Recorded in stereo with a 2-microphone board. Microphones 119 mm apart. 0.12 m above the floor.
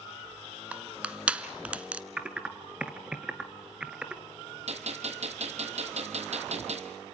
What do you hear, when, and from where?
0.7 s crushing: 10° right (ahead or behind), 0.9 m
2.2 s typing on a keyboard: 10° right (ahead or behind), 1.2 m
4.7 s a gunshot: 65° right (ahead or behind), 1.8 m